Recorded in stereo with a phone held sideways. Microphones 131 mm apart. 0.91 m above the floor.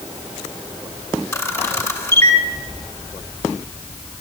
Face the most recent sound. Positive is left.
turn(degrees=20)  # may be behind; listen again after turning